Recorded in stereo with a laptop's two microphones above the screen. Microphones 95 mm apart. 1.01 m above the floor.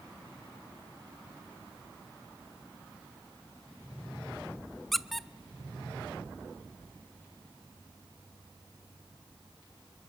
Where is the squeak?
Centre (ahead or behind), 0.6 m.